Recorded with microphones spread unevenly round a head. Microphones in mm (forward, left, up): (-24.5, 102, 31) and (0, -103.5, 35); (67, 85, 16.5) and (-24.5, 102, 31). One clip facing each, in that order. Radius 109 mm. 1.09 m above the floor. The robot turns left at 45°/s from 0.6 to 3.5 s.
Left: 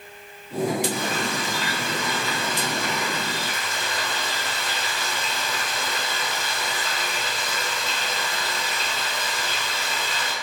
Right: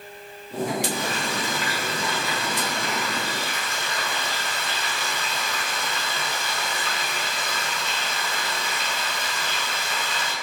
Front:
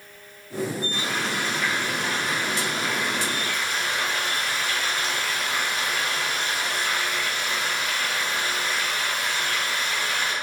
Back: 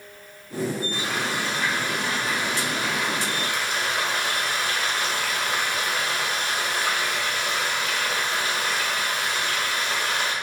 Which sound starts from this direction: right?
Frying, at 0.9 s.